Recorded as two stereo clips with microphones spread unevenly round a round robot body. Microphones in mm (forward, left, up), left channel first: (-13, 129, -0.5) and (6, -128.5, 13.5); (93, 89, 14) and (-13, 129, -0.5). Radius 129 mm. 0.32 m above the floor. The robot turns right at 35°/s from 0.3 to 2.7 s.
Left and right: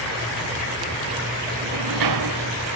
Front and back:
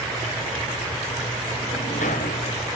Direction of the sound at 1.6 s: 90° right.